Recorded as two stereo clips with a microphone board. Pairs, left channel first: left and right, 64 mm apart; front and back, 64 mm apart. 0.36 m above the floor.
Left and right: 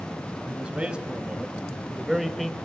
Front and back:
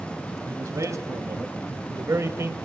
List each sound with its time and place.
0.5 s a man speaking: 160° right, 2.5 m; by 2.5 s 175° left, 1.6 m